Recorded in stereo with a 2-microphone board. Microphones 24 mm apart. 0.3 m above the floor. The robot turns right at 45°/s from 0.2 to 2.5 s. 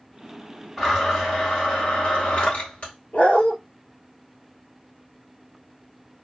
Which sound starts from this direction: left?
A dog barking, at 3.1 s.